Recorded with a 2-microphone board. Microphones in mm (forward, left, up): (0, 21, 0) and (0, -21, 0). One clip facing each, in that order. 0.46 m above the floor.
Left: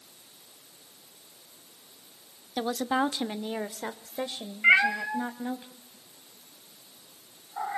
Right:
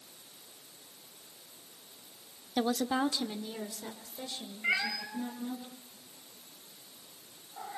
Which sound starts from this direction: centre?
A woman speaking, at 2.6 s.